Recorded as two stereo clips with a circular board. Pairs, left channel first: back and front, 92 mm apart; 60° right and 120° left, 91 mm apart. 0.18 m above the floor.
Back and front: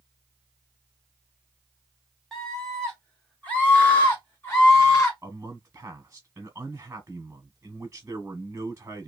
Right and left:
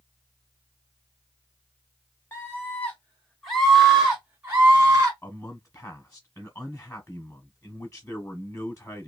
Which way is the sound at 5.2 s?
35° right.